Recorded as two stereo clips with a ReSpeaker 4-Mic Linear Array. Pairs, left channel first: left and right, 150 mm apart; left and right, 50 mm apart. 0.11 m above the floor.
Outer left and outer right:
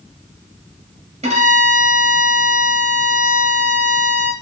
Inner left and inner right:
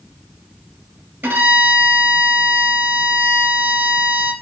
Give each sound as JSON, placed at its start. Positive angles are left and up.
{"t": 1.2, "sound": "a violin", "side_deg": -45, "distance_m": 1.0}